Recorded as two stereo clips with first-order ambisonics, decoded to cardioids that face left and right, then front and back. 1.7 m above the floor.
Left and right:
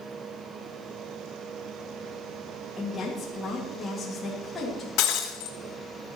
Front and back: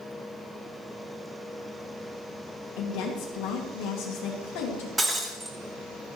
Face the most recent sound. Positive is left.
turn(degrees=95)